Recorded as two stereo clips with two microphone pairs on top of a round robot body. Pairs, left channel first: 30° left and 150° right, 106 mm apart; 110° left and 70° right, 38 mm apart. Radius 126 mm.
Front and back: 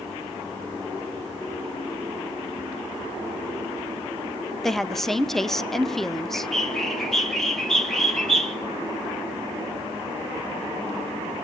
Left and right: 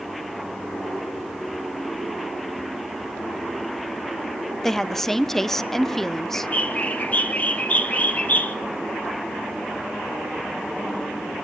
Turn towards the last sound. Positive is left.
turn(degrees=145)